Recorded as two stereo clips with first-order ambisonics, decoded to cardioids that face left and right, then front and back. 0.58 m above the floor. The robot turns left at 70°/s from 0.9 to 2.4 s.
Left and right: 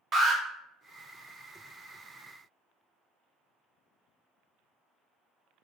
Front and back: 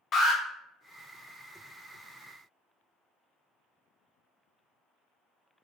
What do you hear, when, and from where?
0.1 s an alarm: 40° right, 0.6 m